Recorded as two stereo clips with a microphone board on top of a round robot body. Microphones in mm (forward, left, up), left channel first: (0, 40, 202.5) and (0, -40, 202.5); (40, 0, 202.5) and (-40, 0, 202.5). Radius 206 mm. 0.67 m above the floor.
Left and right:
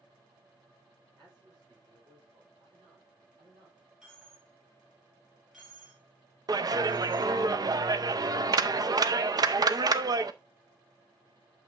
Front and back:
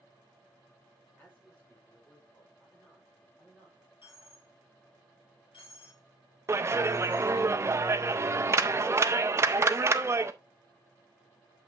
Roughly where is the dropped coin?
Ahead.